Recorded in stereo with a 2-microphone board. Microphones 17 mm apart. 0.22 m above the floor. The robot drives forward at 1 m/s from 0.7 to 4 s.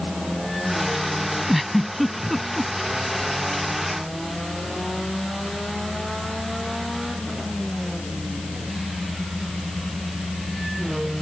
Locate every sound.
1.5 s a giggle: 5° right (ahead or behind)